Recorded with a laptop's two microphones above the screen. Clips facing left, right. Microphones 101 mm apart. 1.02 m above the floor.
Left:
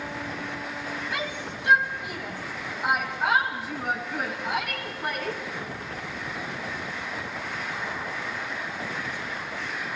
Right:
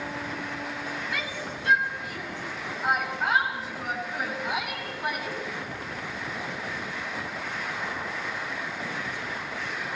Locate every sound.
1.1 s a shout: 20° left (ahead or behind), 5.5 m; by 5.4 s 10° right (ahead or behind), 7.5 m